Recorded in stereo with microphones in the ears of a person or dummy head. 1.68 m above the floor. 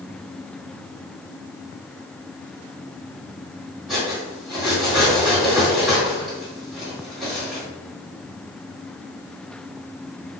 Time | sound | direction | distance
3.9 | cutlery clinking | centre (ahead or behind) | 2.0 m